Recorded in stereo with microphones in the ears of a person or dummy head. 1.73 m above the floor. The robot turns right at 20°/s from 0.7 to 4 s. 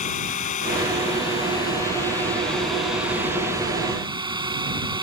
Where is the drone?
135° left; by 5.0 s 160° right.